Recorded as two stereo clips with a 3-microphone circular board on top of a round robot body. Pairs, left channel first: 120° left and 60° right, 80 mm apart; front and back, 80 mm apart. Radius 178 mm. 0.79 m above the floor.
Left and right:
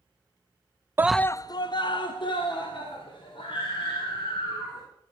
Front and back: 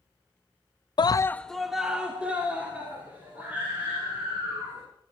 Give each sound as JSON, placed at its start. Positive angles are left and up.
{"t": 1.0, "sound": "a scream", "azimuth_deg": 0, "distance_m": 0.5}